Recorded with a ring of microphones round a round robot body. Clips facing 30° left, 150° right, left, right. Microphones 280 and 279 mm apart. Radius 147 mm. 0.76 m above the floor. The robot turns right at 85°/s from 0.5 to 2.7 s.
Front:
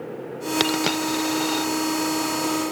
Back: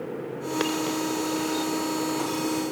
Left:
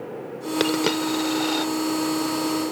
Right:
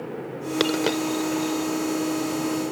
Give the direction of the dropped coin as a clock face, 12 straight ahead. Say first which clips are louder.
Front 2 dB, left 1 dB; 12 o'clock.